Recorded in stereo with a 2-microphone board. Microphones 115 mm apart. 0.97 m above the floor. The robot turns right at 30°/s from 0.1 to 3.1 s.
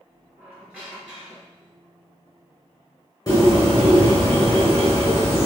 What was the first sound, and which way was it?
A squeak, 25° right.